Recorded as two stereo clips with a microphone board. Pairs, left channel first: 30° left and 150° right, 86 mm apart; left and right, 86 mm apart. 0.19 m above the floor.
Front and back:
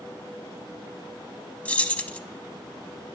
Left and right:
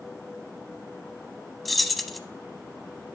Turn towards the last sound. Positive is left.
turn(degrees=5)